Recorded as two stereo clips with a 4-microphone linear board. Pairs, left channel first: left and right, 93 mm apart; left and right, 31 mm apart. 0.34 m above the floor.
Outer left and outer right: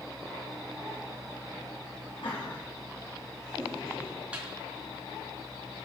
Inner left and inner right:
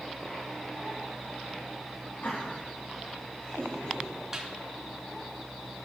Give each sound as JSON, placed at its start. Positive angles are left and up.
{"t": 2.2, "sound": "laughter", "side_deg": 65, "distance_m": 3.0}
{"t": 4.3, "sound": "a snare drum", "side_deg": -15, "distance_m": 3.5}